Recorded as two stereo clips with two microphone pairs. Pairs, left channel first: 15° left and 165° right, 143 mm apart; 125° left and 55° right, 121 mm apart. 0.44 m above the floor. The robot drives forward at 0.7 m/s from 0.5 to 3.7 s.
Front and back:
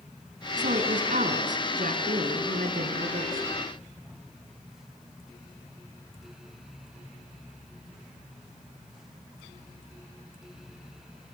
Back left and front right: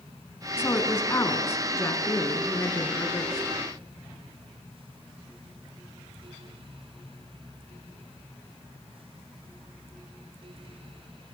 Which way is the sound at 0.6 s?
165° right.